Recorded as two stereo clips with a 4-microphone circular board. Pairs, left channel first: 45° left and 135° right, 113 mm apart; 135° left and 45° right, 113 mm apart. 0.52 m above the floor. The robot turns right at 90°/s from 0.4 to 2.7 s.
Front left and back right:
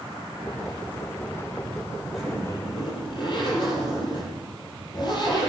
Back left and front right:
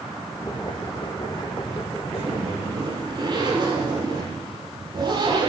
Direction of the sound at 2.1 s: 50° right.